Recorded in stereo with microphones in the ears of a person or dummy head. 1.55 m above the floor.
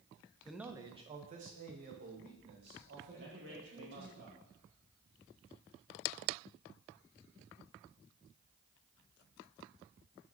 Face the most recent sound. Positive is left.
turn(degrees=-75)  # may be behind; listen again after turning